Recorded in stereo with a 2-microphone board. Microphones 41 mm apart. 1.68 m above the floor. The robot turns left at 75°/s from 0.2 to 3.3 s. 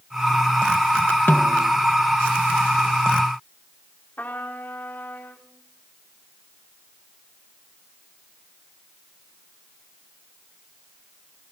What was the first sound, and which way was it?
A snare drum, 60° left.